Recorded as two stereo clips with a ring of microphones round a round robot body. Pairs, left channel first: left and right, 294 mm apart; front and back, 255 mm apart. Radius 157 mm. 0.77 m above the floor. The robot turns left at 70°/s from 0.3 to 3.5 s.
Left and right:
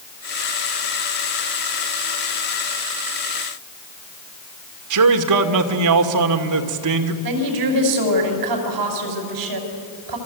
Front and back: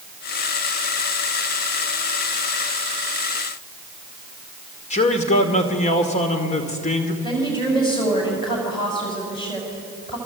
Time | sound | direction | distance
4.9 | a man speaking | 65° right | 2 m
7.2 | a woman speaking | 75° right | 5.5 m